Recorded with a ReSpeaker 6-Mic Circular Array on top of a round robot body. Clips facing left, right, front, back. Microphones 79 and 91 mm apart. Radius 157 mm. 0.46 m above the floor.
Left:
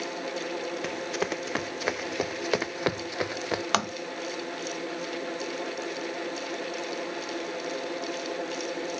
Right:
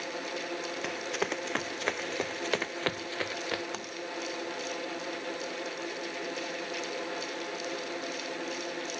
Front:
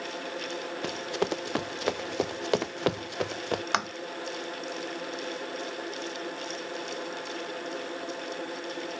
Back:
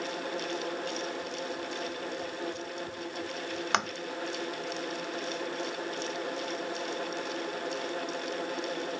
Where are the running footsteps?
Straight ahead; by 3.6 s 20° left.